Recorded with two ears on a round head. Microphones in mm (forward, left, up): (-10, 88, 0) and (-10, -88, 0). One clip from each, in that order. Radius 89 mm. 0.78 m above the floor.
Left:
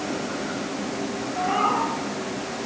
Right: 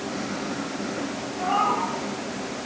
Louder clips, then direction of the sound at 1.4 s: Even; 15° left (ahead or behind).